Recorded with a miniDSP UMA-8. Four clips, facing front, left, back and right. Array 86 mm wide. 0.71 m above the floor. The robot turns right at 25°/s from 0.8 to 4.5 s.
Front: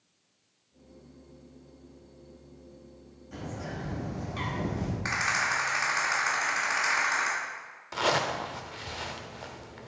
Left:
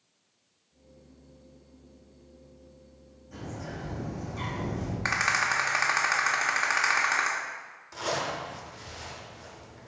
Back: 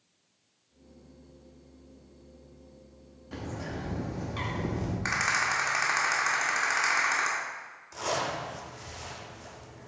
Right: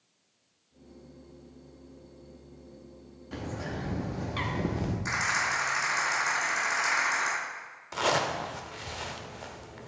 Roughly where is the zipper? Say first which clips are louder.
Right 4 dB, front 4 dB; ahead right.